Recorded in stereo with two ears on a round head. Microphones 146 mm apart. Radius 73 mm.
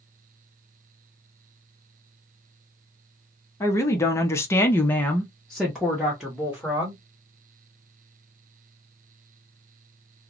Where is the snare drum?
I don't hear a snare drum.